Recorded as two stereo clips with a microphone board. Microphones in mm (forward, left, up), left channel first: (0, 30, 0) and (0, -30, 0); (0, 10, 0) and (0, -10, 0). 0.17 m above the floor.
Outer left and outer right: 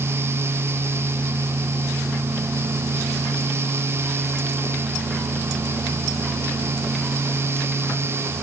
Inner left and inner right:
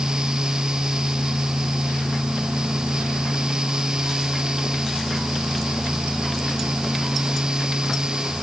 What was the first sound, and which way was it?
Only background noise.